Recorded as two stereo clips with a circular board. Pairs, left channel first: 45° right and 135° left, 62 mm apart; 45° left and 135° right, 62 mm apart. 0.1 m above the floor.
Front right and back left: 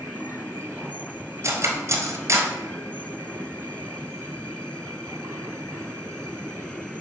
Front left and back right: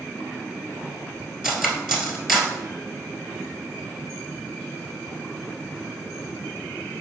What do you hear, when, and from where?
1.4 s cutlery clinking: 145° left, 1.3 m